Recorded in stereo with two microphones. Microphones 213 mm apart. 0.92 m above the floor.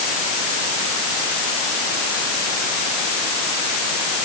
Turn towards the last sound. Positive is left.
No sound to turn to.